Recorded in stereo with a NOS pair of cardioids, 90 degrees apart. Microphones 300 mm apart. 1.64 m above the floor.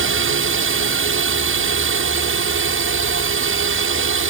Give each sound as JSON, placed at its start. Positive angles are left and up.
{"t": 0.0, "sound": "a drone", "azimuth_deg": -45}